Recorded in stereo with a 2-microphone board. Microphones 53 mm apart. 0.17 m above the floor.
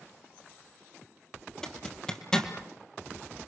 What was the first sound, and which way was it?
A zipper, 15° left (ahead or behind).